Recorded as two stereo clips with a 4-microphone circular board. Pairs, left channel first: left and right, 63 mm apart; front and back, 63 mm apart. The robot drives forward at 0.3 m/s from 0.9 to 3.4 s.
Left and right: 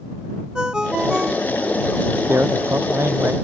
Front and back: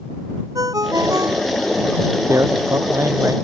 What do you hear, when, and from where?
0.6 s a ringtone: 170° right
2.3 s a man speaking: 140° right